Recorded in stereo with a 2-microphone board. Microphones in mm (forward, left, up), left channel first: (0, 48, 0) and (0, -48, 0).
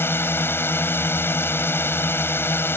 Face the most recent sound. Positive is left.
turn(degrees=25)  # may be behind; listen again after turning